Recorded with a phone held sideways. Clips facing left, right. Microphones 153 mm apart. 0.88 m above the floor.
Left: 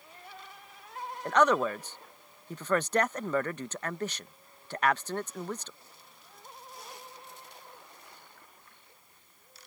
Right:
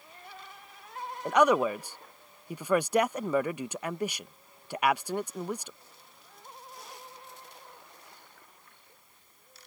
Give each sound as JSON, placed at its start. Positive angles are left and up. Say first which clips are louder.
{"t": 1.2, "sound": "a man speaking", "louder": "right 2 dB", "side_deg": -10}